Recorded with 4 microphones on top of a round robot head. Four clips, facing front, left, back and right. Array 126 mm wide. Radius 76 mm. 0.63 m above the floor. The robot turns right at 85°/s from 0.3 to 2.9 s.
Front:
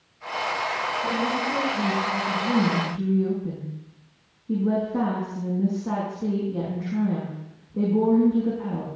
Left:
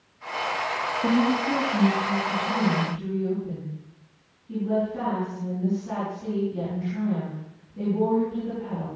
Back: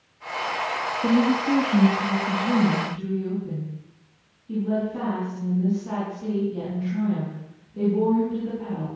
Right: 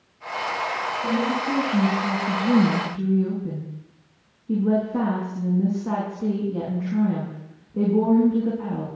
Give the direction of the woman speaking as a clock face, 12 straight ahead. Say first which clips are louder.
Left 2 dB, back 8 dB; 7 o'clock.